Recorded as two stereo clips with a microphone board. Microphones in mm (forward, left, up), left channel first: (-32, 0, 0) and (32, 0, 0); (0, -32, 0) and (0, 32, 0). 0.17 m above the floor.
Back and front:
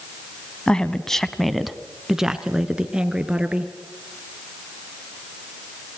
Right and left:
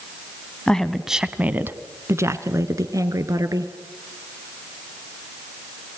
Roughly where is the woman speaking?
Behind right.